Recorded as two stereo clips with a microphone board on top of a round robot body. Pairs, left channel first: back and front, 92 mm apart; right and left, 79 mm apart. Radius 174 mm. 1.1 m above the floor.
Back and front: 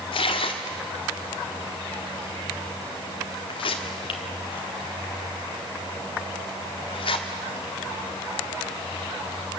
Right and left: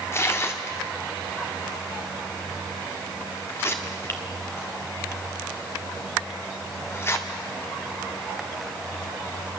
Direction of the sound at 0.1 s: 150° right.